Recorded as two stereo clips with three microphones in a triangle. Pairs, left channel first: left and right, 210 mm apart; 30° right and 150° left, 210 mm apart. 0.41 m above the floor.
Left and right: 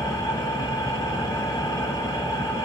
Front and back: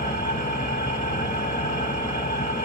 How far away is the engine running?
About 1.4 m.